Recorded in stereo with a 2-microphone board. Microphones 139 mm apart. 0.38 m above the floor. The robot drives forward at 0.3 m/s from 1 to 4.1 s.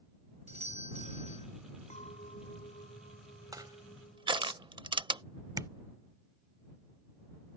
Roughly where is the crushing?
Right.